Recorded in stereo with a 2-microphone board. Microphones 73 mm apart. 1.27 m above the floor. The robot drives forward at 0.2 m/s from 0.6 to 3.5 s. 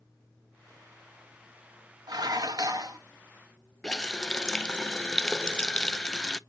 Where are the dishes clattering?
65° right (ahead or behind), 1.1 m; by 3.0 s 60° right (ahead or behind), 1.2 m.